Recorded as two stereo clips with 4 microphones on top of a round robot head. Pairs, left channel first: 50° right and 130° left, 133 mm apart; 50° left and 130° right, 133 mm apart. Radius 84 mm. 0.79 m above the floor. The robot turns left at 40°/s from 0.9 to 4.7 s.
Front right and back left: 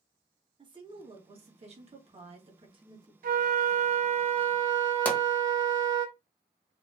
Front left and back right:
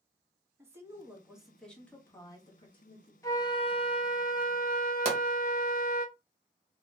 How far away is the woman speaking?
About 1.1 m.